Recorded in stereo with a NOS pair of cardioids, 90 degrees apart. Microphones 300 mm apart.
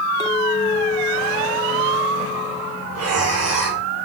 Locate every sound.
0.2 s a clink: 15° left, 4 m
2.9 s breathing: 55° right, 8.5 m